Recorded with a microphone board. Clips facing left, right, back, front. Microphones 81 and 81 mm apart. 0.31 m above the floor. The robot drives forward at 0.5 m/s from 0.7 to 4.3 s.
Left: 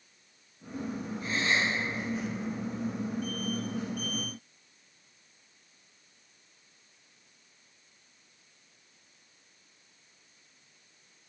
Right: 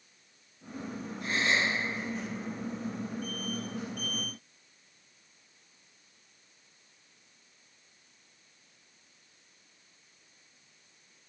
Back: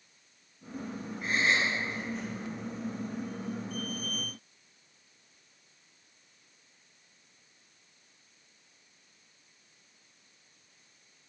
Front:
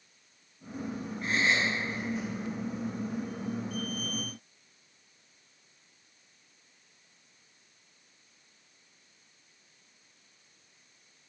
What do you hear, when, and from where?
1.2 s a gasp: 95° right, 5 m; by 1.7 s 100° right, 5 m